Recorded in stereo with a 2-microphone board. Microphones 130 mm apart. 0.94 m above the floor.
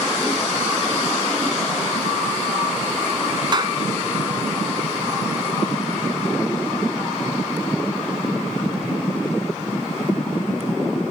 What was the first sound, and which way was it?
A clap, 35° right (ahead or behind).